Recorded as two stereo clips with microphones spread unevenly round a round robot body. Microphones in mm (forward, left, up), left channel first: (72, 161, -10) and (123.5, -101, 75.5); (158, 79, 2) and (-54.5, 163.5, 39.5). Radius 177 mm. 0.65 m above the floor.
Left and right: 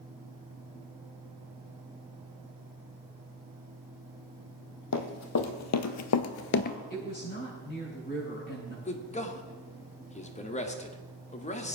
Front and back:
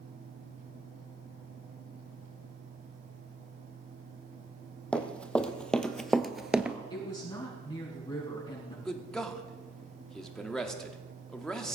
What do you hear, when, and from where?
4.9 s running footsteps: 65° left, 1.8 m; by 6.8 s straight behind, 0.6 m
6.9 s a woman speaking: 45° left, 5.5 m
8.8 s a man speaking: 60° left, 1.8 m